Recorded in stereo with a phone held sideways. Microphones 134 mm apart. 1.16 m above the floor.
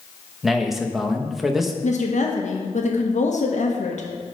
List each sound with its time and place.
0.4 s a man speaking: centre (ahead or behind), 1.0 m
1.8 s a woman speaking: 65° left (ahead or behind), 1.4 m